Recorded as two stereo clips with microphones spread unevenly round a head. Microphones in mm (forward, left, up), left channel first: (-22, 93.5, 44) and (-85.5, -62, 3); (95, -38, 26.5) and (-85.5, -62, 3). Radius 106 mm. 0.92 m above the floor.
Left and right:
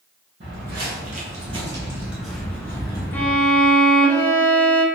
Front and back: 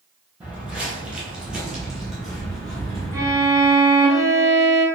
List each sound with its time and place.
0.4 s footsteps: 85° right, 1.3 m; by 3.4 s 85° left, 1.2 m
3.1 s a violin: 115° left, 0.5 m